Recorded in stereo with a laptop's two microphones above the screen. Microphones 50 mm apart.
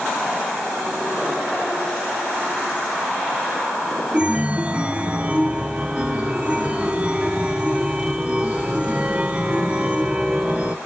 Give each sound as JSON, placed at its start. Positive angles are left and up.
{"t": 4.1, "sound": "a chime", "side_deg": -20, "distance_m": 0.6}